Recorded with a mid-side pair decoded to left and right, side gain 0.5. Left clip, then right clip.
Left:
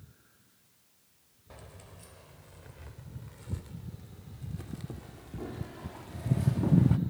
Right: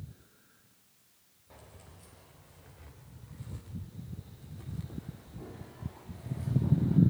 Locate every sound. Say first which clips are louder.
1.5 s keys jangling: left 3 dB; 40° left, 5 m; by 7.0 s 70° left, 1.9 m